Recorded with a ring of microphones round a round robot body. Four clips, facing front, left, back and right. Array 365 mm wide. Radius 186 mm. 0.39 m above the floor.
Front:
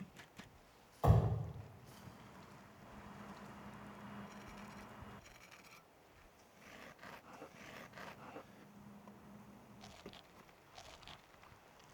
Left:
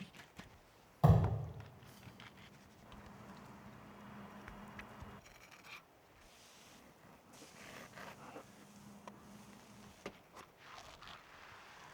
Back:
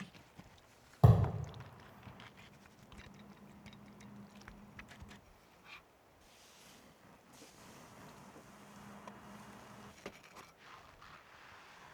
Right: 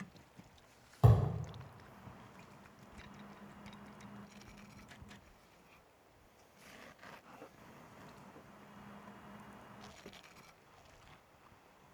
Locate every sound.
1.0 s a thud: 165° right, 3 m